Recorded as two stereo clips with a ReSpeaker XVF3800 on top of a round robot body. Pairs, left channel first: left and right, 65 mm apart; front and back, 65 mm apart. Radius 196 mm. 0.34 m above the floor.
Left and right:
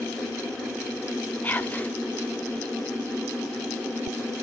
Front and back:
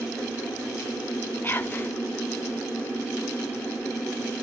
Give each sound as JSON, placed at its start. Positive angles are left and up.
{"t": 1.4, "sound": "whispering", "azimuth_deg": 40, "distance_m": 1.6}